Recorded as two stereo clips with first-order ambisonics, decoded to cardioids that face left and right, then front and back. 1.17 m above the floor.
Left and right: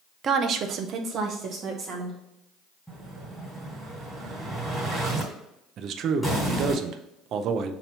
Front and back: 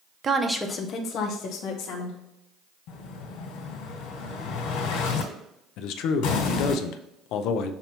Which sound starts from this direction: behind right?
A woman speaking, at 0.2 s.